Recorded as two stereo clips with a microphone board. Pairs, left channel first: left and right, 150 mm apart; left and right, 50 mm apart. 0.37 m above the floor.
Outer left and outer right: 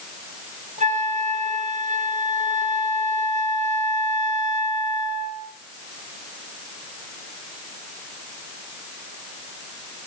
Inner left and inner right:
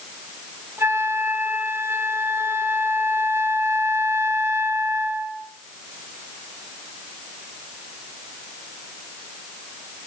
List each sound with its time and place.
0.8 s a flute: 55° right (ahead or behind), 2 m